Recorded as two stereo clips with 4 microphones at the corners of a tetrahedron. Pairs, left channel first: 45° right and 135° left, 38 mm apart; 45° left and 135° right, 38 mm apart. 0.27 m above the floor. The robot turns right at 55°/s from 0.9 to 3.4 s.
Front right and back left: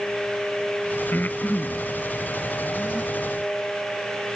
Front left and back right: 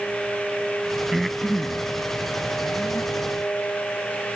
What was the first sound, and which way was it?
Breathing, 45° right.